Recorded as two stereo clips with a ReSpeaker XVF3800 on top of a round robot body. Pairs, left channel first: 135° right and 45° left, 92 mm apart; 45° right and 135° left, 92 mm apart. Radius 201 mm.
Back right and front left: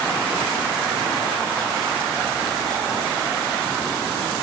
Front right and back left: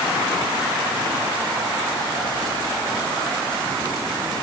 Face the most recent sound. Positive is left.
No sound to turn to.